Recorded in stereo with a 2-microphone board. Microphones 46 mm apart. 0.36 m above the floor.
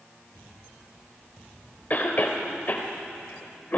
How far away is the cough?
About 1.2 m.